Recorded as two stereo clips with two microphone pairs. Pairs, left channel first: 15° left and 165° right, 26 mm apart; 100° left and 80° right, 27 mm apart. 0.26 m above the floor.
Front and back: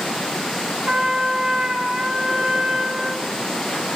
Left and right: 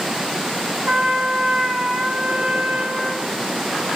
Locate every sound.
0.9 s a trumpet: 115° right, 1.6 m